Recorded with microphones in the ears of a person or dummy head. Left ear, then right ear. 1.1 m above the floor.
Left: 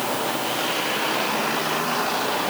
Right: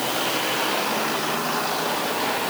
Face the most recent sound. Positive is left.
No sound to turn to.